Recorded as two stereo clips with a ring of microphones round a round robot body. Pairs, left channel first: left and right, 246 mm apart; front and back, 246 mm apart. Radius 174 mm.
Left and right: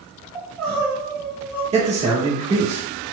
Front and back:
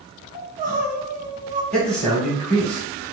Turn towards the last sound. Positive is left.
turn(degrees=-85)